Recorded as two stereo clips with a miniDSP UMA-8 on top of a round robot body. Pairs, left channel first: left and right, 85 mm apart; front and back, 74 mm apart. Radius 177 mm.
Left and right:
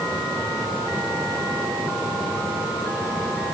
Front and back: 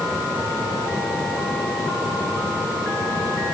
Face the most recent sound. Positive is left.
No sound to turn to.